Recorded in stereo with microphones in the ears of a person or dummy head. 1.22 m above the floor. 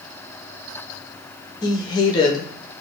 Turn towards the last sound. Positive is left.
turn(degrees=25)  # may be behind; listen again after turning